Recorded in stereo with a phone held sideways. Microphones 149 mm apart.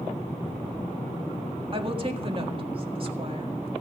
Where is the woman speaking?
40° right (ahead or behind), 1.7 m.